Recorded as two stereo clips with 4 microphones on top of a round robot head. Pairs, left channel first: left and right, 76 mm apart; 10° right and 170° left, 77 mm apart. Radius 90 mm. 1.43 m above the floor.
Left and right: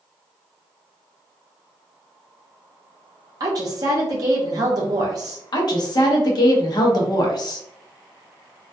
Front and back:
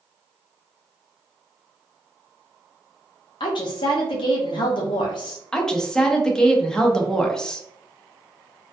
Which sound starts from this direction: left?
A woman speaking, at 5.5 s.